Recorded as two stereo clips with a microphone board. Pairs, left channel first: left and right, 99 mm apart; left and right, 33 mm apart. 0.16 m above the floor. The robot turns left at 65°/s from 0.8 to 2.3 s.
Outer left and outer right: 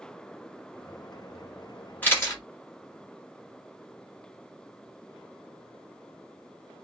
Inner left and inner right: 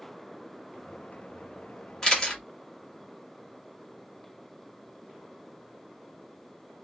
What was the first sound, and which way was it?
A camera shutter, 15° left (ahead or behind).